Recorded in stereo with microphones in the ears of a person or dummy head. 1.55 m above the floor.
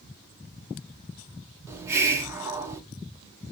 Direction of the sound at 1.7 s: 15° right (ahead or behind).